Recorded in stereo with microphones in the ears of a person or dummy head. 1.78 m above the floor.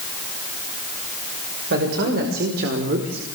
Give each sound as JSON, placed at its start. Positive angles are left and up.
{"t": 1.7, "sound": "a man speaking", "side_deg": -65, "distance_m": 6.0}